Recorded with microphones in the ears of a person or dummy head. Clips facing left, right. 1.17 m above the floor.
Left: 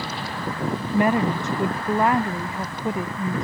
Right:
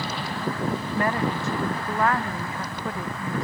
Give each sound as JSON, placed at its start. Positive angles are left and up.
{"t": 0.9, "sound": "a woman speaking", "side_deg": 10}